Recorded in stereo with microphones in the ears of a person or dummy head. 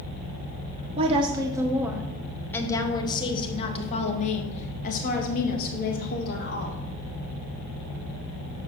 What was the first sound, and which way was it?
A woman speaking, 35° right (ahead or behind).